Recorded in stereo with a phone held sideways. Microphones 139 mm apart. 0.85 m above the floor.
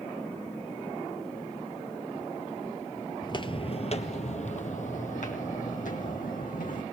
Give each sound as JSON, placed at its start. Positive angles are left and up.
{"t": 3.2, "sound": "footsteps", "side_deg": 30, "distance_m": 0.9}